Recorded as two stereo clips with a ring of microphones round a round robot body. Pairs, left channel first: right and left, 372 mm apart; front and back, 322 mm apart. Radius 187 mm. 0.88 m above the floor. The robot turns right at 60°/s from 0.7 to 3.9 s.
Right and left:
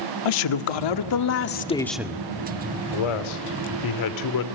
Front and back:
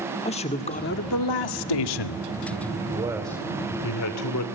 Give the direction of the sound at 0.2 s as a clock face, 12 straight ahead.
2 o'clock.